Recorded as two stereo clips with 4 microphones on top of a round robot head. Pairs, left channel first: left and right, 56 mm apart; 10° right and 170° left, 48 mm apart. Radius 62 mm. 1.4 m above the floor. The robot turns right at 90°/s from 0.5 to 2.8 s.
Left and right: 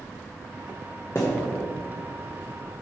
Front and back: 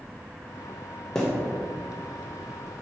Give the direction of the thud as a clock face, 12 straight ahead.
10 o'clock.